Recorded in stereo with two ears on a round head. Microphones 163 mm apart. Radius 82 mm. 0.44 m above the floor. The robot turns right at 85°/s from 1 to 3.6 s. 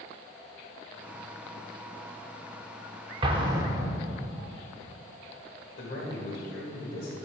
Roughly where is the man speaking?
Left.